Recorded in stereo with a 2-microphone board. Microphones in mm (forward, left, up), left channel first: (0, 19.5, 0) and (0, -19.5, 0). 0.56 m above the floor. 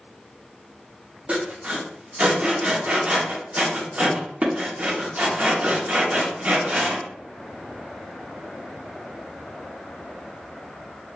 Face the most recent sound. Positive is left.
turn(degrees=-40)  # may be behind; listen again after turning